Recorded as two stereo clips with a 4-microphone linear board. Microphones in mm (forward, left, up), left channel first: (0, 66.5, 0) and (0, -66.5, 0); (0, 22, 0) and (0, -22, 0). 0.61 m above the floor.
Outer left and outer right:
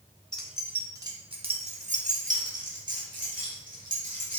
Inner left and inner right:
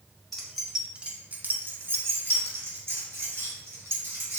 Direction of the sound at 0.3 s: 5° left (ahead or behind).